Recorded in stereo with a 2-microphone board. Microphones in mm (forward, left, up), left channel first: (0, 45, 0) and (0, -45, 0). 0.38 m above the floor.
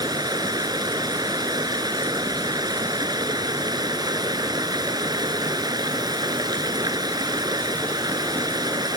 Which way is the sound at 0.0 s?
45° right (ahead or behind).